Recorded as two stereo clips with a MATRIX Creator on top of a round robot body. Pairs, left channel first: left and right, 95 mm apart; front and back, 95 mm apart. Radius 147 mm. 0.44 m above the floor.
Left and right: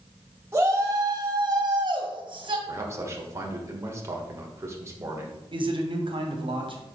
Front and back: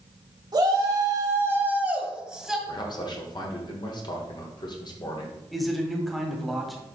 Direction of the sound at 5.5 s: 90° right.